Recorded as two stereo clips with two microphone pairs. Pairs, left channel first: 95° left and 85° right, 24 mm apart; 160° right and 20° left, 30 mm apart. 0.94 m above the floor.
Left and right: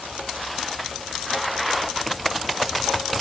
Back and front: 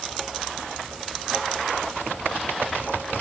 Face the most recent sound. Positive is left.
No sound to turn to.